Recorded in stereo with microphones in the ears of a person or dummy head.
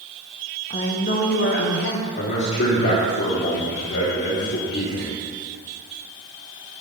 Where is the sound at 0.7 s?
30° left (ahead or behind), 0.8 m; by 2.1 s 70° left (ahead or behind), 1.1 m.